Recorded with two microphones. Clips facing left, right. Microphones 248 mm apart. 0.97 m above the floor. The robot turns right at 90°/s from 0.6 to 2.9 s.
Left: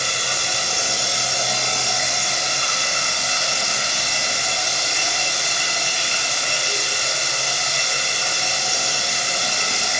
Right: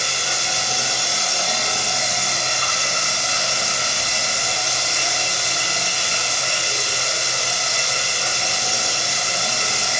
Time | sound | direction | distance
0.0 | running water | 90° left | 1.2 m